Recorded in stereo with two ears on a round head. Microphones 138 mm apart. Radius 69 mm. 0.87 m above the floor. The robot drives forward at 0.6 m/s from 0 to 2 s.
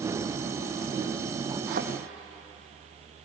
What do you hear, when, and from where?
1.7 s a thud: 60° right (ahead or behind), 2.5 m